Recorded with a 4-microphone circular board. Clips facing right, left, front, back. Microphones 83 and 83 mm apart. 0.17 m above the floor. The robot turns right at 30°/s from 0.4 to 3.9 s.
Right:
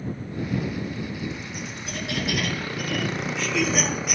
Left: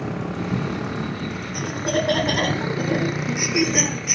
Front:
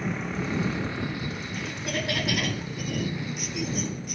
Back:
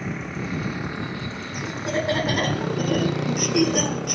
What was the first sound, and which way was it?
A motorcycle, 90° left.